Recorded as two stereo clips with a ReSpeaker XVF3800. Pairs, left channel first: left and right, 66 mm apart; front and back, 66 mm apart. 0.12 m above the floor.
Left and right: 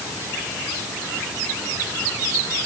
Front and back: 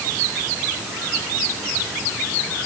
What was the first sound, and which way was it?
Only background noise.